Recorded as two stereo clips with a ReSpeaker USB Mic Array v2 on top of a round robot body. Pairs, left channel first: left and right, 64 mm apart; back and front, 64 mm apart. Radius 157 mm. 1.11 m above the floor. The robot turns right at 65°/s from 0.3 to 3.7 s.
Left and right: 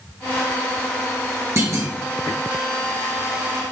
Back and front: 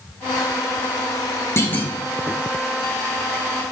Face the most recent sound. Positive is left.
turn(degrees=5)